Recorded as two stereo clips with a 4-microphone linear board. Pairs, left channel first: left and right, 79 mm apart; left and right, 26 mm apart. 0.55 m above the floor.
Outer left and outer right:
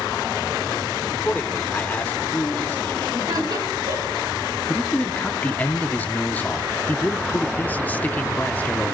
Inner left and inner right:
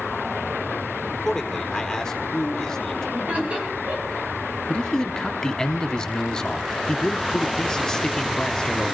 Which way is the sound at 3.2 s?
60° right (ahead or behind).